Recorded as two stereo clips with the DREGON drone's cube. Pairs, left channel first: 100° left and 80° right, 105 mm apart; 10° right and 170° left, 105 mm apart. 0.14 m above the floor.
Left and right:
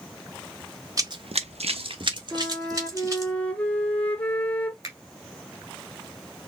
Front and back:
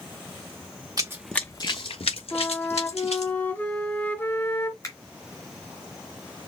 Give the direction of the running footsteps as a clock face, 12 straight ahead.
4 o'clock.